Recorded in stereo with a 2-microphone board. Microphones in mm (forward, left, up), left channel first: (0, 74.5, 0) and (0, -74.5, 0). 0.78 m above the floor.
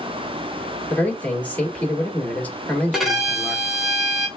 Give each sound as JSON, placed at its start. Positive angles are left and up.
{"t": 0.9, "sound": "a man speaking", "side_deg": 10, "distance_m": 1.7}
{"t": 2.9, "sound": "a violin", "side_deg": -5, "distance_m": 1.1}